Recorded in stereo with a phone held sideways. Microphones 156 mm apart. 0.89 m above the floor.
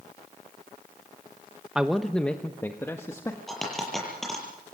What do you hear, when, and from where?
1.8 s a man speaking: 5° right (ahead or behind), 0.8 m; by 3.4 s 20° left (ahead or behind), 1.6 m
3.5 s a dropped coin: centre (ahead or behind), 6.5 m